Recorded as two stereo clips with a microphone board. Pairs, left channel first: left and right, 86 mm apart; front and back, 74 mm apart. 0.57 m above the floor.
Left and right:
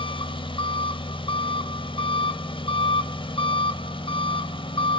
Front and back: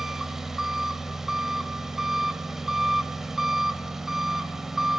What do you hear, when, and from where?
0.0 s an engine running: 95° left, 1.3 m